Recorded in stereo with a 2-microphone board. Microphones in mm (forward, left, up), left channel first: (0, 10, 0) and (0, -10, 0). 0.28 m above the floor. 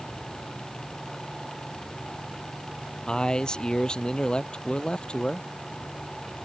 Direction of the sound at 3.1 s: 45° left (ahead or behind).